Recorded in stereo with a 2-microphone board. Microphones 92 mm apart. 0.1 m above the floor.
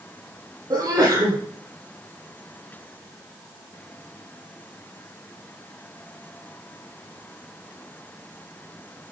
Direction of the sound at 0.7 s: 45° right (ahead or behind).